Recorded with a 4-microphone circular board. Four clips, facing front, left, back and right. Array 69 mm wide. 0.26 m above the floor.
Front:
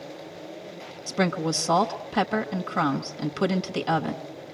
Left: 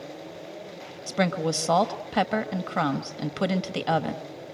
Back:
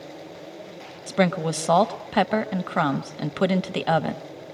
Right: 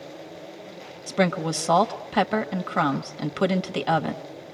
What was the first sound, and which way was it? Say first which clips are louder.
A woman speaking: right 2 dB, back 3 dB; 165° right.